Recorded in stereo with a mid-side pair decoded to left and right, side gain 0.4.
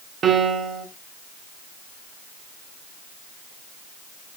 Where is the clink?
No clink in this recording.